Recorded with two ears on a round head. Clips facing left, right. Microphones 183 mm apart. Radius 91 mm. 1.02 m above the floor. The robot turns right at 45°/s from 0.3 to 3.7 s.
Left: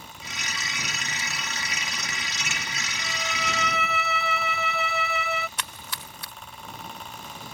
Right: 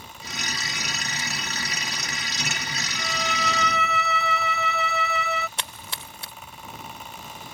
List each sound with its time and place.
3.0 s a violin: 135° right; by 5.5 s 100° right
5.6 s a splash: 25° right (ahead or behind)